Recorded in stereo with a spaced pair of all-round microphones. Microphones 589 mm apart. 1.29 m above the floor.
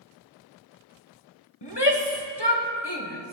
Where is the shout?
45° left (ahead or behind), 1.1 m.